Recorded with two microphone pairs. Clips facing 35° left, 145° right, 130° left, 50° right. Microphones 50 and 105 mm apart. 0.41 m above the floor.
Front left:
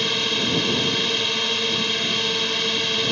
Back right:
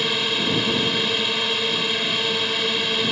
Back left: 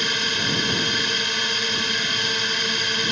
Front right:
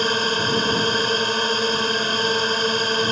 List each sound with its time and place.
0.0 s a drone: 65° right